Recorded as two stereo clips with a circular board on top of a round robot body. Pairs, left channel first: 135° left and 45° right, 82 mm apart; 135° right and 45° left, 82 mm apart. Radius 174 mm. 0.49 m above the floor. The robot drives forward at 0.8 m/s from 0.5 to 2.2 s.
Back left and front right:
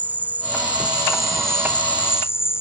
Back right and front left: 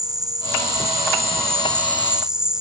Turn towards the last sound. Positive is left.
turn(degrees=120)